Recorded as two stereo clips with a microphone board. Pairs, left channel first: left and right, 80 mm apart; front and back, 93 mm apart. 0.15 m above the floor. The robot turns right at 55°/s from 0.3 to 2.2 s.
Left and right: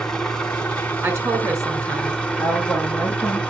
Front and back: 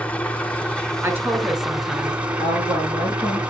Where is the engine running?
25° left, 1.2 m; by 3.5 s 130° left, 1.2 m.